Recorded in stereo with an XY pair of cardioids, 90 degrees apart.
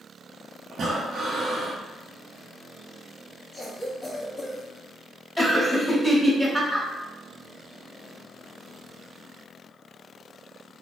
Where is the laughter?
5° right, 1.3 m.